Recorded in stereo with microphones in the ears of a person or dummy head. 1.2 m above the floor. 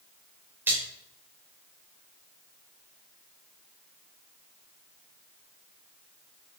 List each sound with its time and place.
0.7 s a splash: 15° right (ahead or behind), 3.5 m